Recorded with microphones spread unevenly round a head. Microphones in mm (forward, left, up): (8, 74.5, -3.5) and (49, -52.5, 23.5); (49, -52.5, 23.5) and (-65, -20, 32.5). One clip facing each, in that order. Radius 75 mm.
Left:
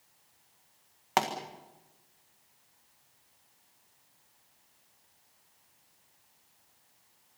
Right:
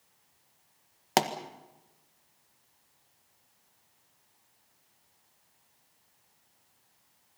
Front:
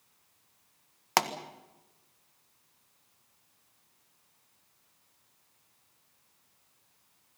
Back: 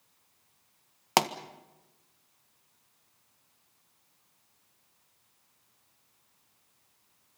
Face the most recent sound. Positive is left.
turn(degrees=-130)